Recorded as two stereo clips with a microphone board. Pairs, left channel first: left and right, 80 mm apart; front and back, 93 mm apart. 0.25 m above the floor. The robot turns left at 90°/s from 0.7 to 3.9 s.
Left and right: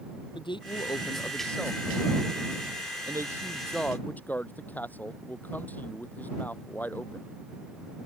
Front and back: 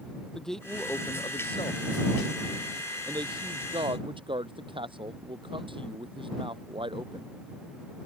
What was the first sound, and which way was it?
A man speaking, 85° left.